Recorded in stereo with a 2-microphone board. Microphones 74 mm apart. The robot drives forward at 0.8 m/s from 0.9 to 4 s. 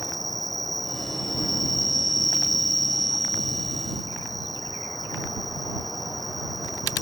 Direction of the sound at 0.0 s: Centre (ahead or behind).